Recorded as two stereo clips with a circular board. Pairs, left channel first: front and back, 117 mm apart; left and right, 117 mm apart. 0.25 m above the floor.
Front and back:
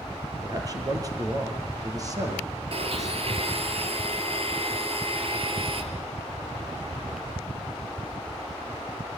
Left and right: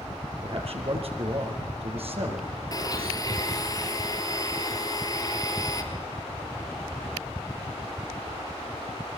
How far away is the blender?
About 4 m.